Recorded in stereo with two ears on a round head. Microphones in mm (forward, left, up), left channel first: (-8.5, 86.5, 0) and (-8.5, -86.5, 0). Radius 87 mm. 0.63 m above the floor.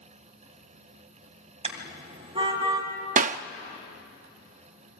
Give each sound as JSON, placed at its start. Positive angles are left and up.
{"t": 1.6, "sound": "a car horn", "side_deg": -30, "distance_m": 2.5}
{"t": 3.2, "sound": "a clap", "side_deg": -40, "distance_m": 0.6}